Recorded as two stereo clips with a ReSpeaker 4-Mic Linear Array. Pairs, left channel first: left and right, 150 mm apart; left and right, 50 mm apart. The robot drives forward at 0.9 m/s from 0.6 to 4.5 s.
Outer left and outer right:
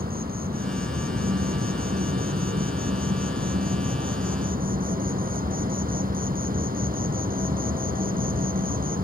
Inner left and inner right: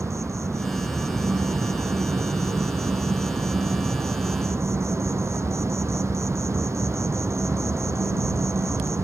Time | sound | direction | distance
0.0 | an insect | 80° right | ?